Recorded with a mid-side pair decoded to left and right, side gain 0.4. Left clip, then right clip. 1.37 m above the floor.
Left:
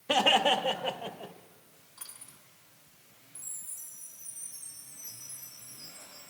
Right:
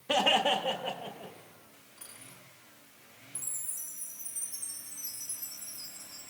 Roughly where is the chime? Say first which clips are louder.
Right 4 dB; ahead right.